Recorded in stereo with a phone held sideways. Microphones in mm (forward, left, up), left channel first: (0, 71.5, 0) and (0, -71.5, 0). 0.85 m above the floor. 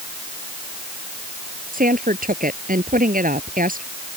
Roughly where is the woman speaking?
Right.